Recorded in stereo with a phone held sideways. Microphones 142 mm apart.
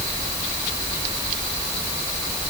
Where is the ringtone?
No ringtone in this recording.